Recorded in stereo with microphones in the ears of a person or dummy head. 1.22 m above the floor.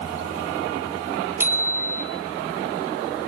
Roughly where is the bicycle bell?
Centre.